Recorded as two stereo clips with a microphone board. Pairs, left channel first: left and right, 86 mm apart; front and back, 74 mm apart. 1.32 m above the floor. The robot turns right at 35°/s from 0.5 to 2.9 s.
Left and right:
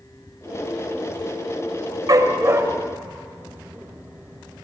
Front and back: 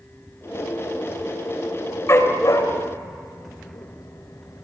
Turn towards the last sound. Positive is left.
turn(degrees=-20)